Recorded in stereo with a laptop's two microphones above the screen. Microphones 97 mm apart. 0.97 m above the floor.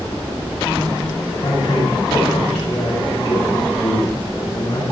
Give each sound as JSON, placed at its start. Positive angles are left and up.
{"t": 1.4, "sound": "a man speaking", "side_deg": 40, "distance_m": 6.0}